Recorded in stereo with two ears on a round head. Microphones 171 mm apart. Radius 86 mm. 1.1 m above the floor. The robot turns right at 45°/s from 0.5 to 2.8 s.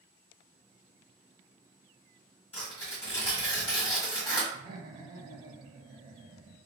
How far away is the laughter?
About 0.8 m.